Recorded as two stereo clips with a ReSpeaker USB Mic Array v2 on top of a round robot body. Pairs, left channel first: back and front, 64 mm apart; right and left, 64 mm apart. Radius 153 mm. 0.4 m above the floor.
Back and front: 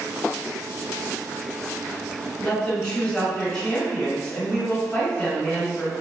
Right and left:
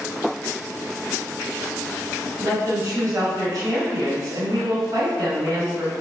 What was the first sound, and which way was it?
A woman speaking, 110° left.